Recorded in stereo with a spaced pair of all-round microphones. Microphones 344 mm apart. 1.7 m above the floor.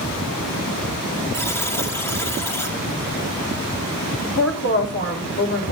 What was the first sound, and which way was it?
A buzzer, 5° left (ahead or behind).